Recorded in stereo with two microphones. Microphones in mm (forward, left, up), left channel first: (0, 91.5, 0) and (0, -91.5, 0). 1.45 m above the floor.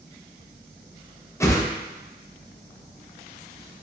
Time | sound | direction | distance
1.4 | a whoosh | 15° left (ahead or behind) | 0.6 m